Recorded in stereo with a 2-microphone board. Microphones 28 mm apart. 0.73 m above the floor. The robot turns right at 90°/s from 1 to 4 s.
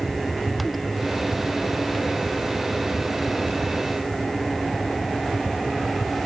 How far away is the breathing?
No breathing in this recording.